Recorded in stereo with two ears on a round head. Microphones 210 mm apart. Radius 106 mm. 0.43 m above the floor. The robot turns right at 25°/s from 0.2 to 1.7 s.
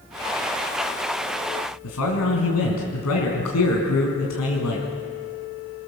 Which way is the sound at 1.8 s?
75° left (ahead or behind).